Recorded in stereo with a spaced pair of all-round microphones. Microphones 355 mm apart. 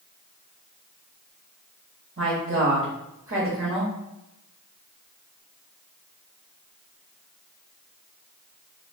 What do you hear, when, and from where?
2.2 s a woman speaking: 40° right (ahead or behind), 0.9 m